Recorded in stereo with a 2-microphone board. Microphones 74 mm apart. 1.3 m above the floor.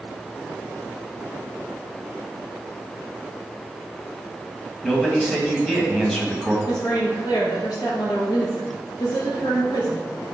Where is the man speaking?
10° left (ahead or behind), 1.5 m.